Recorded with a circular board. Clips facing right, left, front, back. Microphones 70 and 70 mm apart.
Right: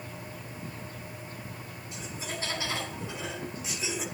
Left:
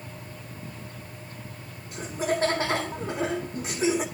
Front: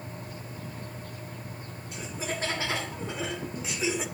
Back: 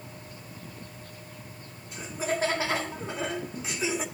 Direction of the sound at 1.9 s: 95° left.